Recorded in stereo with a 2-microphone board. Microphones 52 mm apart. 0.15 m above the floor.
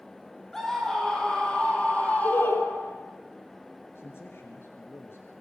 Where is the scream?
10° left (ahead or behind), 5.5 m; by 3.0 s 40° left (ahead or behind), 6 m.